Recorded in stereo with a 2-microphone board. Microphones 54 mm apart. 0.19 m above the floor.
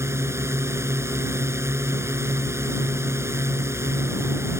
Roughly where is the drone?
Right.